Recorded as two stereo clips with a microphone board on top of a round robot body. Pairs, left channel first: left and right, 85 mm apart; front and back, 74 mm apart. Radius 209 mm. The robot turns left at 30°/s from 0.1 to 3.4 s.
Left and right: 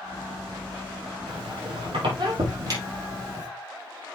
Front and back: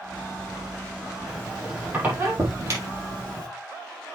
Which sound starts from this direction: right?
A squeak, at 1.3 s.